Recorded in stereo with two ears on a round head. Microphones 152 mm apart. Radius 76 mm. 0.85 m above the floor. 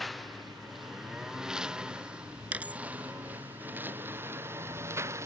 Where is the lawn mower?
Centre (ahead or behind); by 5.3 s 15° right (ahead or behind).